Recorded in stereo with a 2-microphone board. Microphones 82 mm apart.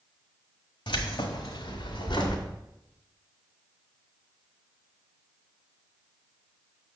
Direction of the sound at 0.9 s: 75° left (ahead or behind).